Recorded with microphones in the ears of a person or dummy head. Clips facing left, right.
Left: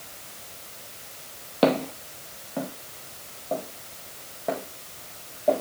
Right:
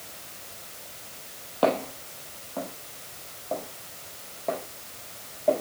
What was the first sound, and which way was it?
Footsteps, 25° left (ahead or behind).